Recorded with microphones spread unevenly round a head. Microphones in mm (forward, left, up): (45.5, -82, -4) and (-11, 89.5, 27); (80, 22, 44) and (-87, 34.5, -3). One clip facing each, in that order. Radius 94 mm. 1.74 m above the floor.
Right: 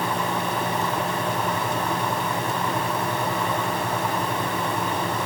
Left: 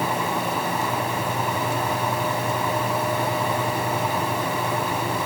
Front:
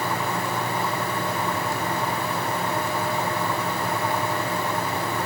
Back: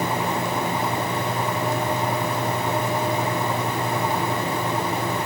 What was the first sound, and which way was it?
Only background noise.